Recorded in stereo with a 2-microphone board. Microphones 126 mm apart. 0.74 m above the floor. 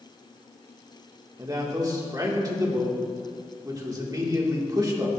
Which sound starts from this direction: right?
A man speaking, at 1.4 s.